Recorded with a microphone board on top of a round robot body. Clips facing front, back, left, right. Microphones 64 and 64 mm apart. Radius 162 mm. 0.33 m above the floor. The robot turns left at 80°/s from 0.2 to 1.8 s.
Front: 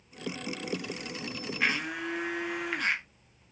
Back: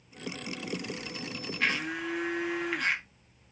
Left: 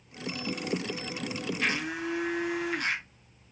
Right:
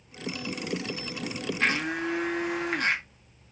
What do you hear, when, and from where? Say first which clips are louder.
1.6 s a blender: even, right 5 dB; 70° right, 1.0 m; by 3.0 s 85° right, 1.0 m